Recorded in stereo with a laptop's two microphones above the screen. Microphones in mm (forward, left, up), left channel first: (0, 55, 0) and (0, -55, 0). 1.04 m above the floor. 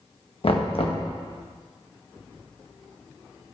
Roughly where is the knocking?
Left.